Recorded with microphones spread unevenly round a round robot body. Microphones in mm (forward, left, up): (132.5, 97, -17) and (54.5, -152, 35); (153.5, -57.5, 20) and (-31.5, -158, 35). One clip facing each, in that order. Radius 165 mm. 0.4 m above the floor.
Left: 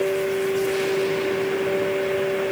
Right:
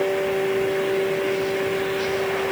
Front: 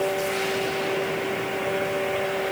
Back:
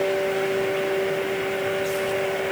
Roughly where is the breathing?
I don't hear breathing.